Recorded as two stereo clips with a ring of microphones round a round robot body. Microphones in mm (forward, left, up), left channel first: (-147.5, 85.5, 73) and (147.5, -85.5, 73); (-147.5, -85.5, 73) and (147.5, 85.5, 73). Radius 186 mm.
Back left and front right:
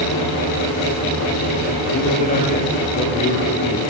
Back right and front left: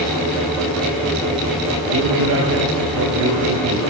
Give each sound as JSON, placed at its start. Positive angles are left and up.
{"t": 1.9, "sound": "a man speaking", "azimuth_deg": 85, "distance_m": 7.0}